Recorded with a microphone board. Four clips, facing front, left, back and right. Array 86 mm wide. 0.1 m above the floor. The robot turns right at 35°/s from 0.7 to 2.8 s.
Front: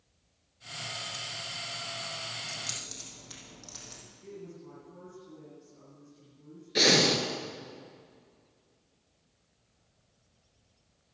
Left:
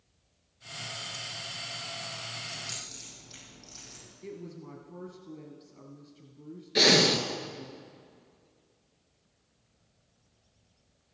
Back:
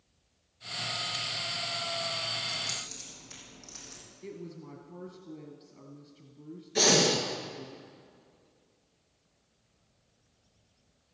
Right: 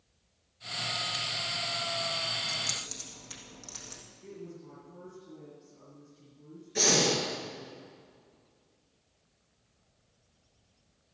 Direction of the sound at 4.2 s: 135° left.